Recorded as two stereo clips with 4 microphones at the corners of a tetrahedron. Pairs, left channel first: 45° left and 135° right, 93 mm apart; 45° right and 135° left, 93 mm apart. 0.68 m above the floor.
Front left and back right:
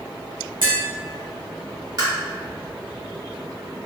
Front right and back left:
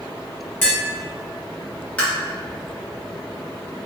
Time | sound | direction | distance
0.6 | tapping | 115° right | 1.6 m
2.0 | tapping | 115° right | 1.3 m